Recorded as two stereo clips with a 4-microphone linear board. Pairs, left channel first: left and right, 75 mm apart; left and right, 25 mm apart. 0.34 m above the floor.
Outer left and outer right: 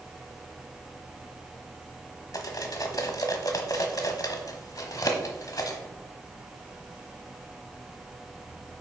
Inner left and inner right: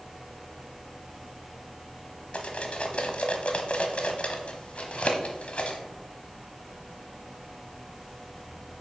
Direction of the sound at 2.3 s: 55° left (ahead or behind).